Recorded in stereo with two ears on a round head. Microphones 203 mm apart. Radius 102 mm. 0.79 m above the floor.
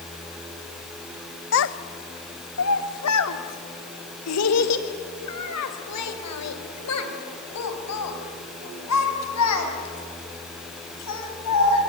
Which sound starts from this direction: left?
A child speaking, at 1.5 s.